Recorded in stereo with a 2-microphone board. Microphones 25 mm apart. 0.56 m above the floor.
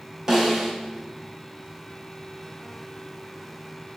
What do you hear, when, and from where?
0.3 s a snare drum: 20° right (ahead or behind), 1.5 m